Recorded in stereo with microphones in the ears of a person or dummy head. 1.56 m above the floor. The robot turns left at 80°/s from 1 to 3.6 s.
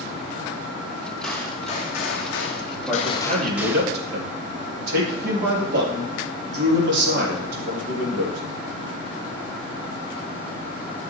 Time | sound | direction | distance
1.2 | a gunshot | straight behind | 1.6 m
2.9 | a man speaking | straight ahead | 3.5 m